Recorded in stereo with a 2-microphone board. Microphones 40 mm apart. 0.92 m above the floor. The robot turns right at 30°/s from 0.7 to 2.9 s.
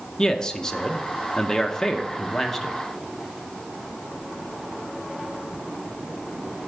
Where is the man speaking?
20° left (ahead or behind), 0.6 m; by 2.8 s centre (ahead or behind), 0.6 m.